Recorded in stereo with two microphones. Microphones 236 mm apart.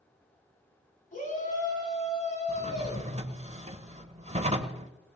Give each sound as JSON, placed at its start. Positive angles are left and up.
{"t": 1.1, "sound": "a shout", "side_deg": 35, "distance_m": 6.5}
{"t": 2.5, "sound": "a drawer", "side_deg": -30, "distance_m": 1.2}